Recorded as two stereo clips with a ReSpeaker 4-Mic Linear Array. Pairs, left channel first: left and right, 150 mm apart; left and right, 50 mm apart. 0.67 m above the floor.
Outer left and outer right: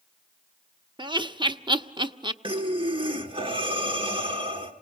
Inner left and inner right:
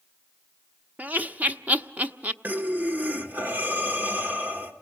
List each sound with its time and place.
1.0 s laughter: 30° right (ahead or behind), 0.8 m
2.4 s breathing: 35° right (ahead or behind), 1.7 m